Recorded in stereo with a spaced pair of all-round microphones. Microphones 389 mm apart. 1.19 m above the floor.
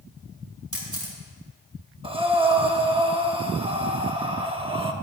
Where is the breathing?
15° right (ahead or behind), 0.9 m.